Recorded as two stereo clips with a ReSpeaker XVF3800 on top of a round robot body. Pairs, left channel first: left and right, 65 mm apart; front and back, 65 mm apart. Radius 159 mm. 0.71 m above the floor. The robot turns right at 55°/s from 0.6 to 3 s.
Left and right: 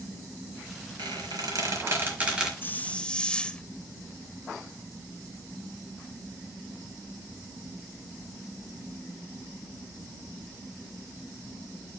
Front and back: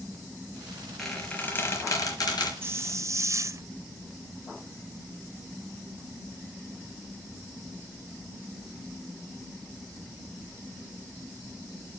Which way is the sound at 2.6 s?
140° left.